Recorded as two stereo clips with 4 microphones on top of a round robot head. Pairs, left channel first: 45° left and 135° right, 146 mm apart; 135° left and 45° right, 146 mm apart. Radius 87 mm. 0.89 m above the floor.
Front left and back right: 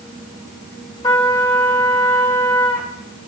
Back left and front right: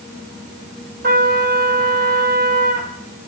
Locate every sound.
1.0 s a trumpet: 20° right, 2 m